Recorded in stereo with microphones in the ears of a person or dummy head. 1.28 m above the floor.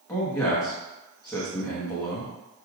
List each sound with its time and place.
0.1 s a man speaking: 20° left (ahead or behind), 1.1 m